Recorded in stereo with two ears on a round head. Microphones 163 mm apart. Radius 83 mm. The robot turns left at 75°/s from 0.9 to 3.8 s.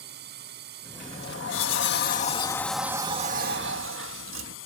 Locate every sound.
0.0 s a drone: 55° right; by 4.7 s 85° left
1.0 s a sliding door: 130° left; by 4.6 s 80° right